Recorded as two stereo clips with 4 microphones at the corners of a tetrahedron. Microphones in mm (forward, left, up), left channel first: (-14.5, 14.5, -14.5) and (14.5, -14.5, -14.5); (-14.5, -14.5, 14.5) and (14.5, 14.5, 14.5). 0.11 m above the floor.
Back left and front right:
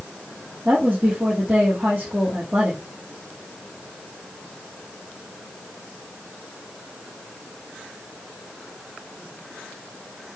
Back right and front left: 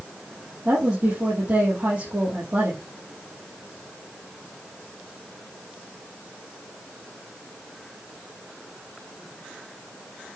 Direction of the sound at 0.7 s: 10° left.